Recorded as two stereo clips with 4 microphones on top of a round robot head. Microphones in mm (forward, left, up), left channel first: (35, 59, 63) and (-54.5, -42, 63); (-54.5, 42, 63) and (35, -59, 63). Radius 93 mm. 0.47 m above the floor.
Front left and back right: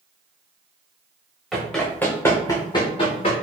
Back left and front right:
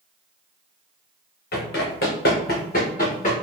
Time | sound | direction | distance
1.5 | running footsteps | 140° left | 2 m